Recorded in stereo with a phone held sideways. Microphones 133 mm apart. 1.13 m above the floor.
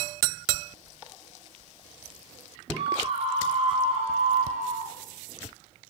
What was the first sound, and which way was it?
A scream, 40° right (ahead or behind).